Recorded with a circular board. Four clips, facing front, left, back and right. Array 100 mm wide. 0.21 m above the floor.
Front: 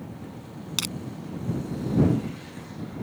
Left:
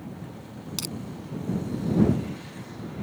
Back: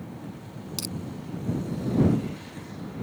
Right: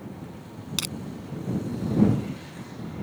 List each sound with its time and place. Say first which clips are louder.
0.8 s crushing: even, front 1 dB; 30° right